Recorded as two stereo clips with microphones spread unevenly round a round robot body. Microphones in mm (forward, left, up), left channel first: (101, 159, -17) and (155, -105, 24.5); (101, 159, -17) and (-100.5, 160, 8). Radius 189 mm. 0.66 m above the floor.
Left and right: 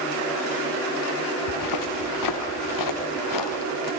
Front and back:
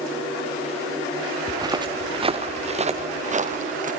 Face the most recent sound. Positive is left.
turn(degrees=130)